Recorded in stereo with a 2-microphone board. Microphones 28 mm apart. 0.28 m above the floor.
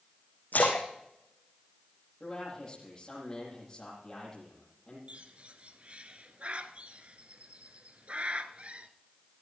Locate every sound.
0.5 s a splash: 80° left, 3.5 m
2.2 s a man speaking: 25° left (ahead or behind), 9.5 m
5.1 s a bird: 45° right (ahead or behind), 1.0 m